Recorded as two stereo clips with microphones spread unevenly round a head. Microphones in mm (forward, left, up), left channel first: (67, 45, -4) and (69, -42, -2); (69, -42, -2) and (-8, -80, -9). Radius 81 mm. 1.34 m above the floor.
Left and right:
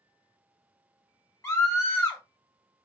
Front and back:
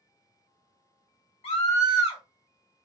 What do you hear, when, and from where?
1.4 s a scream: 35° left, 2.5 m